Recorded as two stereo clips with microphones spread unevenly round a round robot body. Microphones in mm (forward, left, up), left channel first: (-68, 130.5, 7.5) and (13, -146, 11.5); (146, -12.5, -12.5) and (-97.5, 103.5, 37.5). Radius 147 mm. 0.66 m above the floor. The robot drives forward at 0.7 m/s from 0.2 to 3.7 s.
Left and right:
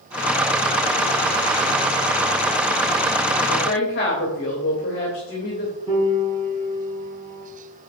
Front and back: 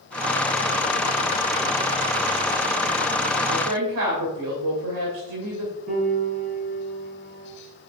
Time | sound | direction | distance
3.5 | a woman speaking | 160° left | 2.5 m
5.9 | a piano | 145° right | 4 m